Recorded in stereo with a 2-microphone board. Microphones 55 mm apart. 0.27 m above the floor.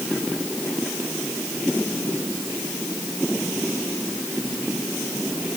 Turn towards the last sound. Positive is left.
No sound to turn to.